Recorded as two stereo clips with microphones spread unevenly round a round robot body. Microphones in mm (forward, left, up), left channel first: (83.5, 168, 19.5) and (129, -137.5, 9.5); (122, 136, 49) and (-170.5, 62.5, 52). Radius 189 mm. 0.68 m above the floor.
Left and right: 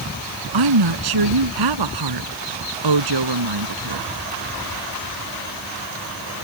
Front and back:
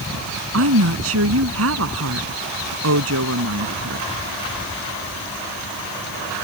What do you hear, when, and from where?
0.5 s a woman speaking: 110° right